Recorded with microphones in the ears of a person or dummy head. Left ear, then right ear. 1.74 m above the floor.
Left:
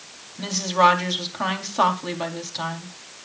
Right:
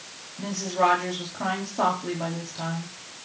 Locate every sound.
0.4 s a woman speaking: 45° left (ahead or behind), 4 m